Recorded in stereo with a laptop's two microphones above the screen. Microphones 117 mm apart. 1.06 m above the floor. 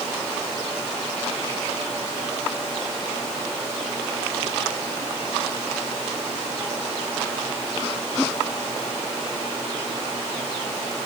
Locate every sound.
Only background noise.